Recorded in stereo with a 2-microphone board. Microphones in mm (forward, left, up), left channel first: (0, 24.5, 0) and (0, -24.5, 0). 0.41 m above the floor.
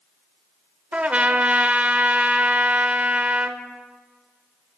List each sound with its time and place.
0.9 s a trumpet: 30° right (ahead or behind), 0.5 m